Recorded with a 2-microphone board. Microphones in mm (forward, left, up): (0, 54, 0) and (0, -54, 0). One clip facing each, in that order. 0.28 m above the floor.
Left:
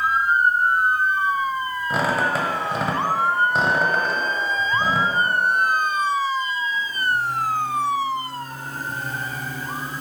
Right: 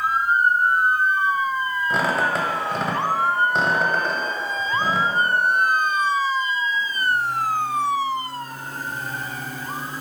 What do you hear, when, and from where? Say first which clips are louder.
1.9 s a squeak: left 1 dB; centre (ahead or behind), 0.8 m